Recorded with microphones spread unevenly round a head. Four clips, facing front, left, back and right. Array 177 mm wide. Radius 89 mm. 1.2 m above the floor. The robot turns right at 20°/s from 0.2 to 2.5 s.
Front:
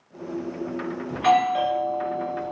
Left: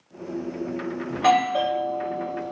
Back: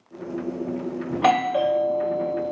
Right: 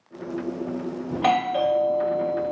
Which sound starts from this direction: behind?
A doorbell, at 1.1 s.